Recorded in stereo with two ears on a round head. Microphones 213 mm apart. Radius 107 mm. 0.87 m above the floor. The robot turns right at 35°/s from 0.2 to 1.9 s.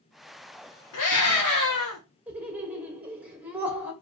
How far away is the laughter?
About 1.2 m.